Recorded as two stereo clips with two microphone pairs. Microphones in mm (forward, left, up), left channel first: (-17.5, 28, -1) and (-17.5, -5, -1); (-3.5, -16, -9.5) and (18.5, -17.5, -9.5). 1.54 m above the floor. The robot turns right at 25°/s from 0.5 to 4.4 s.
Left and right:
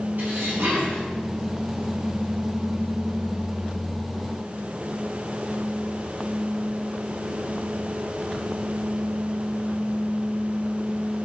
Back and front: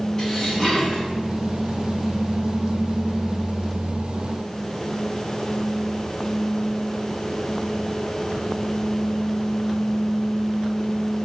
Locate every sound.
0.2 s dishes clattering: 120° right, 8.5 m; by 1.1 s 105° right, 8.5 m